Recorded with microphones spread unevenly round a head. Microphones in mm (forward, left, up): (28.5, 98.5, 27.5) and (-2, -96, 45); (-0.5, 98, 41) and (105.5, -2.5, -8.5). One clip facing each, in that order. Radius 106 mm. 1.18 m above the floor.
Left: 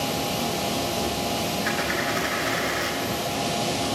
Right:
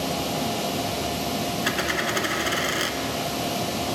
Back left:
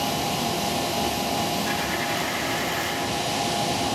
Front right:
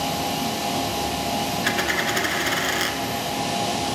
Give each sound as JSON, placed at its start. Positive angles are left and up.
{"t": 1.6, "sound": "a dropped coin", "azimuth_deg": -70, "distance_m": 1.9}